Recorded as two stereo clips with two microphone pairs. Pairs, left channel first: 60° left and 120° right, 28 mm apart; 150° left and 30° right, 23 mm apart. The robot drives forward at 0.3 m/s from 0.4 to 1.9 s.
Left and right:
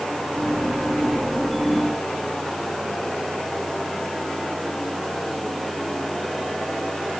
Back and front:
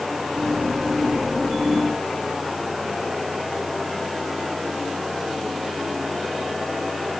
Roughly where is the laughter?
I don't hear laughter.